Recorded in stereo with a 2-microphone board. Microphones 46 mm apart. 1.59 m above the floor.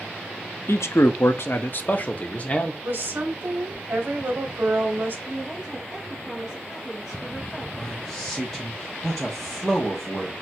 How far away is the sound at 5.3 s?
About 1.2 m.